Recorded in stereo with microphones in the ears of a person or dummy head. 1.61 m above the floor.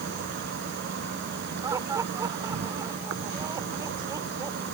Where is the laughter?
20° right (ahead or behind).